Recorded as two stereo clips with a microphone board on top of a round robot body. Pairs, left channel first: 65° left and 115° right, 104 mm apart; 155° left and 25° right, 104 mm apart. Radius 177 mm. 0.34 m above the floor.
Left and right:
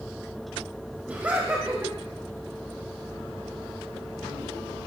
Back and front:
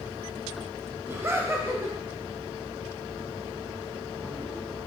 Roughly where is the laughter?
Ahead right.